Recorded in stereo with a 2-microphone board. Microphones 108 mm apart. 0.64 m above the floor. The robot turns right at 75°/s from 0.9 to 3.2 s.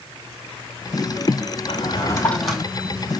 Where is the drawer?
120° left, 2.5 m; by 2.6 s 170° right, 2.5 m.